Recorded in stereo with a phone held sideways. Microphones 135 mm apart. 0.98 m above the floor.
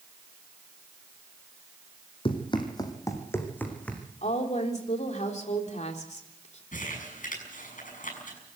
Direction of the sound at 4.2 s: 60° left (ahead or behind).